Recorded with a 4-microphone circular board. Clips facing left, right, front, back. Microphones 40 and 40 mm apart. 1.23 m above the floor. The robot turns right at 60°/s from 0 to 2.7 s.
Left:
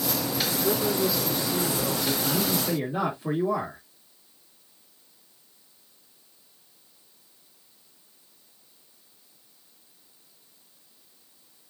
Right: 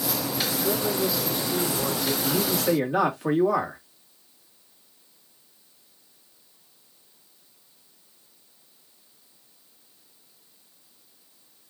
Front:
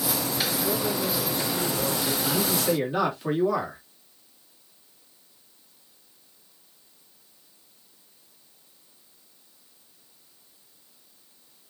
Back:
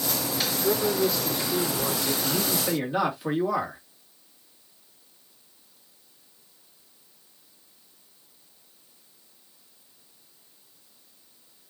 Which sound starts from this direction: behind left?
A man speaking, at 0.6 s.